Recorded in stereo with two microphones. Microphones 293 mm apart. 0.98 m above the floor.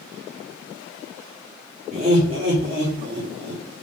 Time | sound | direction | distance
1.9 | laughter | 30° right (ahead or behind) | 2.5 m